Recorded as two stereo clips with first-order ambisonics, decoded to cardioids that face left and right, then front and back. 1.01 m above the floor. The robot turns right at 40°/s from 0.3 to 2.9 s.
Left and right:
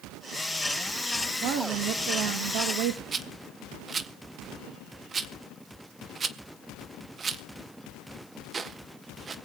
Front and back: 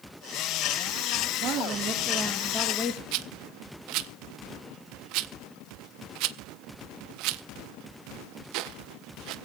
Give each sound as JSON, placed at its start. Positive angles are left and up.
{"t": 1.4, "sound": "a woman speaking", "azimuth_deg": -135, "distance_m": 1.3}
{"t": 3.1, "sound": "a rattle", "azimuth_deg": -160, "distance_m": 0.6}